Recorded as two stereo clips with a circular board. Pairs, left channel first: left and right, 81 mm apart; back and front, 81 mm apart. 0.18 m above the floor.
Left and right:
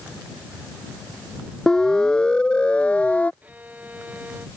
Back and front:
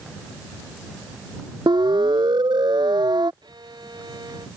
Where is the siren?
5° left; by 3.3 s 15° left.